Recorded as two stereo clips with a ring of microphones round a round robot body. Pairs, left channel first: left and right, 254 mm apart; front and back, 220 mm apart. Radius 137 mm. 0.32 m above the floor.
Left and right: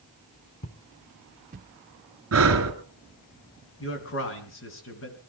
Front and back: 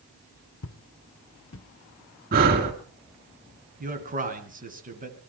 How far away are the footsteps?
About 1.1 m.